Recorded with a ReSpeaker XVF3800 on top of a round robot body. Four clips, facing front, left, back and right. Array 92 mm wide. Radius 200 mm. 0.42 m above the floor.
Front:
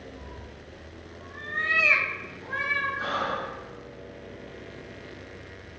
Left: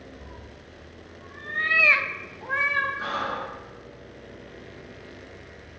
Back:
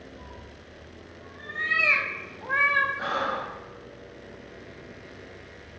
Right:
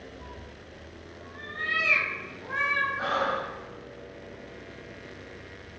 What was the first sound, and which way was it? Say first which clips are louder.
A cat meowing: even, front 1 dB; 25° left.